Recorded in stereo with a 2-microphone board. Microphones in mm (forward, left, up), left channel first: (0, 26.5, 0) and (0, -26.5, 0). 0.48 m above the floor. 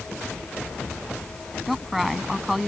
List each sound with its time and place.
1.7 s a woman speaking: 5° right (ahead or behind)